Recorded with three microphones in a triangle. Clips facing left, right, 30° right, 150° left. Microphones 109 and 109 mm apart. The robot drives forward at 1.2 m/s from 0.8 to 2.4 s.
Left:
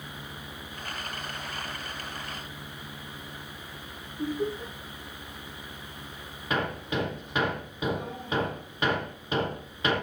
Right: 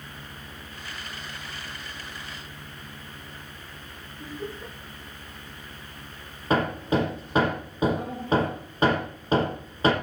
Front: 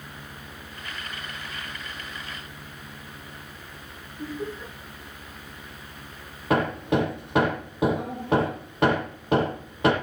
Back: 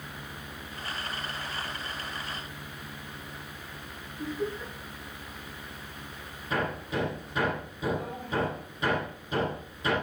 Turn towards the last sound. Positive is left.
turn(degrees=-40)